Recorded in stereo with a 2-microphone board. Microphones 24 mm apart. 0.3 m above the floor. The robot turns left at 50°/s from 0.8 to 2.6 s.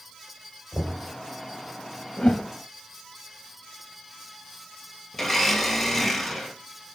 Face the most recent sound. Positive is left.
turn(degrees=10)  # may be behind; listen again after turning